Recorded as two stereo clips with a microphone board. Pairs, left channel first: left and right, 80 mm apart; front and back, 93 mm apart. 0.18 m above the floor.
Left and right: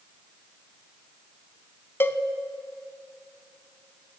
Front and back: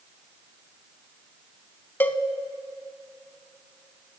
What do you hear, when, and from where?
2.0 s a cowbell: 55° left, 0.5 m